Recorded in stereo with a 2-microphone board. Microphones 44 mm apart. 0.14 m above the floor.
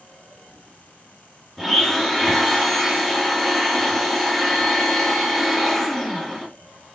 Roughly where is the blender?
Centre.